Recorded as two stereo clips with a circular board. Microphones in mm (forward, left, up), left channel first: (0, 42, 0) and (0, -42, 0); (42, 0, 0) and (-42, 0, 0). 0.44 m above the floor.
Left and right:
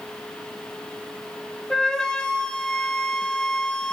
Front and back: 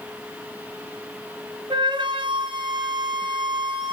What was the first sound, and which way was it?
A flute, 170° left.